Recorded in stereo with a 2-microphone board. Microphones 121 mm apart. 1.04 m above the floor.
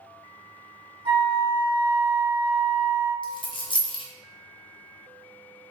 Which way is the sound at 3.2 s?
40° left (ahead or behind).